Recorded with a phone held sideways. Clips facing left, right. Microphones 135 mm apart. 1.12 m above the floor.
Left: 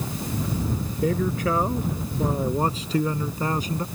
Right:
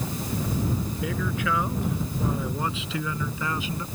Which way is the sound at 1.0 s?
40° left (ahead or behind).